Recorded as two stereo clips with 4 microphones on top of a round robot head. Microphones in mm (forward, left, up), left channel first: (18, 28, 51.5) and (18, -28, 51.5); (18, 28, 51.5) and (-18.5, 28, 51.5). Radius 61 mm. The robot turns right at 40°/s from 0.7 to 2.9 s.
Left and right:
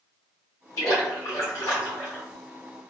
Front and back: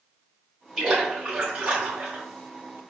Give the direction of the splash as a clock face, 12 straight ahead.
8 o'clock.